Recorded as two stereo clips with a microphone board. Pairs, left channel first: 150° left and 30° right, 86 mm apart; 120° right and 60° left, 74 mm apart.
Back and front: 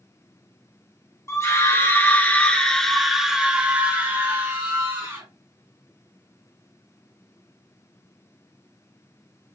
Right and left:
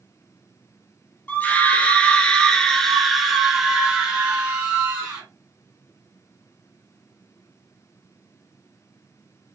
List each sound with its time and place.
1.3 s a scream: 175° right, 1.4 m; by 5.2 s straight ahead, 1.6 m